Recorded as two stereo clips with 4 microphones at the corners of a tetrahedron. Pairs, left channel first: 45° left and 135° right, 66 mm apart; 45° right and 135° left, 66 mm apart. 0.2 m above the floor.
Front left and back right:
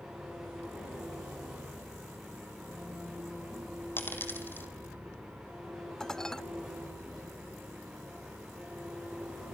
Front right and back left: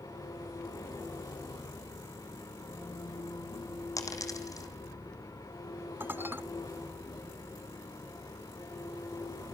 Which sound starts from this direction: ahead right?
An engine running, at 0.0 s.